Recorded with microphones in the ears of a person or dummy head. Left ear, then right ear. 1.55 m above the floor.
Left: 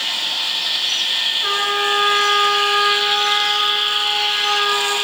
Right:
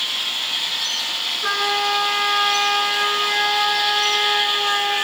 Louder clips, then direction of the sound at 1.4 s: Left 2 dB; 10° right (ahead or behind).